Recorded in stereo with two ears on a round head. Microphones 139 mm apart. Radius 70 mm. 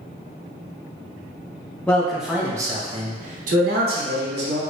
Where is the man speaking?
10° left (ahead or behind), 0.8 m; by 4.6 s 80° right, 1.2 m.